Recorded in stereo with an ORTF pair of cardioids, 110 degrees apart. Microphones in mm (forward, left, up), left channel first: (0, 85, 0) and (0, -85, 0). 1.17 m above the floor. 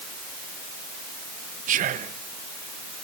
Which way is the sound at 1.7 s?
50° right.